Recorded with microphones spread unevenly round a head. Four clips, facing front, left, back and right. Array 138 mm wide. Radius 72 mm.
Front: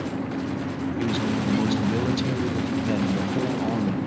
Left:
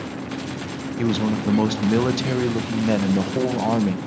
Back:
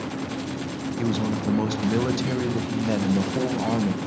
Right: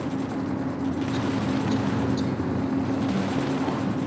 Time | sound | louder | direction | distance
1.0 | a man speaking | left 9 dB, back 1 dB | 100° left | 1.2 m